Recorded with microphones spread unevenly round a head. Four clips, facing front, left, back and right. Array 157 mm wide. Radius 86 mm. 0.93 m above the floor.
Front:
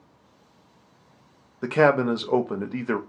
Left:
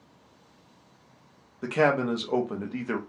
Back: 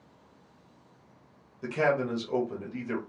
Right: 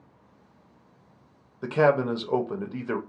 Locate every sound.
1.6 s a man speaking: straight ahead, 0.6 m